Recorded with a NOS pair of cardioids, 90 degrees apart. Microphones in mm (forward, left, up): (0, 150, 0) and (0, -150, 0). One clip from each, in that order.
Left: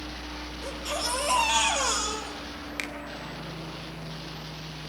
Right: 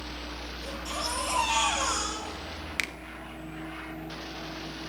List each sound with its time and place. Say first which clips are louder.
0.6 s a baby crying: left 3 dB; 25° left, 9 m
2.8 s a finger snap: right 3 dB; 25° right, 1.2 m